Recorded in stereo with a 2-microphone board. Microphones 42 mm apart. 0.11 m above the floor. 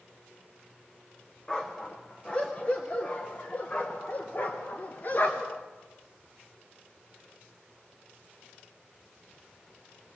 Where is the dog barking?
15° left (ahead or behind), 4 m; by 5.6 s 50° left (ahead or behind), 5.5 m.